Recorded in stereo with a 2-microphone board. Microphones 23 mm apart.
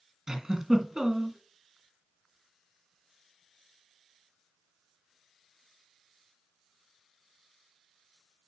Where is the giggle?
25° right (ahead or behind), 1.9 m.